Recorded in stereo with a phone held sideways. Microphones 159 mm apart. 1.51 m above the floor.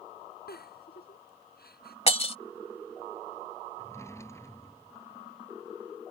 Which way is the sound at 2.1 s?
40° left (ahead or behind).